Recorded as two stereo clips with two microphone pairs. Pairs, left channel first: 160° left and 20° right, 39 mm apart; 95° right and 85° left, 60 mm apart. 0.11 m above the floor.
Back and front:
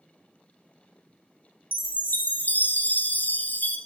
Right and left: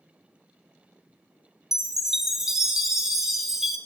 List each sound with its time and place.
1.7 s a chime: 170° left, 0.6 m